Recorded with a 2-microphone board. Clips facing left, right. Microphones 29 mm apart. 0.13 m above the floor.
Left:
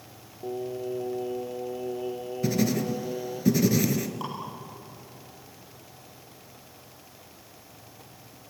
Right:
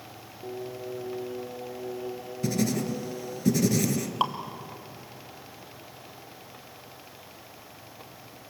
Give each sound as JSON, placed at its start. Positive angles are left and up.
{"t": 0.4, "sound": "singing", "side_deg": 30, "distance_m": 2.0}
{"t": 2.4, "sound": "writing", "side_deg": 10, "distance_m": 1.4}
{"t": 4.2, "sound": "dripping", "side_deg": -65, "distance_m": 1.9}